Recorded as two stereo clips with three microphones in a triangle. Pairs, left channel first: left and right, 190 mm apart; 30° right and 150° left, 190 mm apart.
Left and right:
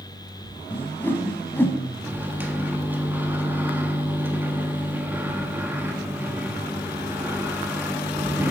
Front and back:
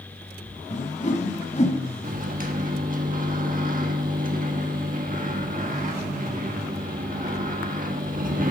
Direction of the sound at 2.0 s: 170° right.